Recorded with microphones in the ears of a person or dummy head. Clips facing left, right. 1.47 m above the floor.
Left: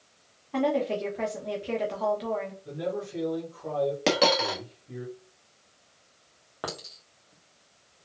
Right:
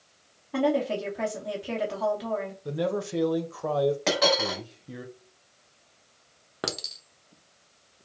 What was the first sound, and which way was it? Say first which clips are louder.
A woman speaking: right 1 dB; 5° right (ahead or behind).